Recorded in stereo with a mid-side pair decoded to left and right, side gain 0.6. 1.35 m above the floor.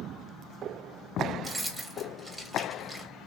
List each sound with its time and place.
1.4 s keys jangling: 10° right, 1.1 m